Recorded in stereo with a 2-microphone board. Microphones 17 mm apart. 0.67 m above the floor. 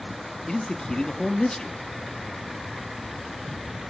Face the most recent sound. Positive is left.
turn(degrees=40)  # may be behind; listen again after turning